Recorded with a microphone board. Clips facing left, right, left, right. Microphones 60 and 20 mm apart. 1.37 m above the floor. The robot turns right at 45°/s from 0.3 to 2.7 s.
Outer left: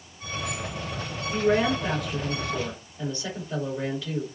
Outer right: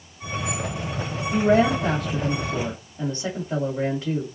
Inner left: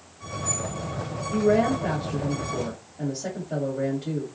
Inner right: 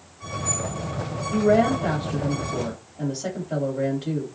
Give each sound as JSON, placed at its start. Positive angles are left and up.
{"t": 1.3, "sound": "a woman speaking", "azimuth_deg": -95, "distance_m": 2.0}